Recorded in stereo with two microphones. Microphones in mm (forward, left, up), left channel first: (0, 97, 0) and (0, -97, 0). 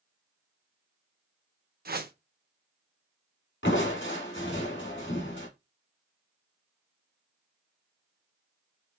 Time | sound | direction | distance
1.9 | a whoosh | 55° right (ahead or behind) | 0.7 m
3.6 | crushing | 80° left | 2.5 m